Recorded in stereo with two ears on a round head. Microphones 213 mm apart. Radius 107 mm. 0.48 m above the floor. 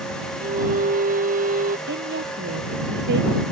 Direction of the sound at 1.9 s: 50° right (ahead or behind).